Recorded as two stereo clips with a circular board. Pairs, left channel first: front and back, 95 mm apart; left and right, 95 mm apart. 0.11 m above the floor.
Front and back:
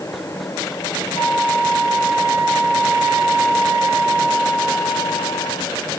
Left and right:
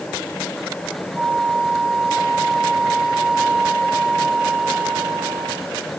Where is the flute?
5° right, 7 m.